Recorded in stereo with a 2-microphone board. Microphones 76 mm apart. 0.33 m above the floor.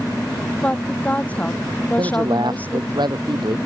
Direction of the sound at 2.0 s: 75° right (ahead or behind).